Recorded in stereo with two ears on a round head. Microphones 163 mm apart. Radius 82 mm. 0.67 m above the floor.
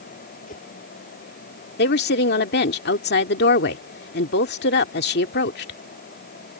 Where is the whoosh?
40° left (ahead or behind).